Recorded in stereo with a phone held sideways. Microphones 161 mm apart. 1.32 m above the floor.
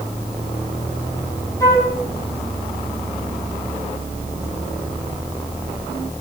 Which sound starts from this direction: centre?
A flute, at 1.6 s.